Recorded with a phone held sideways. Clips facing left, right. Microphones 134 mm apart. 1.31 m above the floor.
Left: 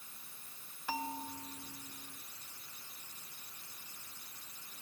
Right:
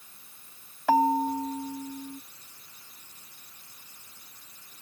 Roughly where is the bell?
Right.